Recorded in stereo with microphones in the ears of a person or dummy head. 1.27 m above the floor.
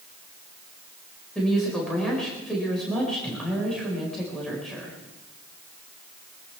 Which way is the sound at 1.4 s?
5° left (ahead or behind).